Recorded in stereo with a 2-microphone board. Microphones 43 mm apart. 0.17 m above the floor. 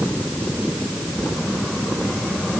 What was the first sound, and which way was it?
Only background noise.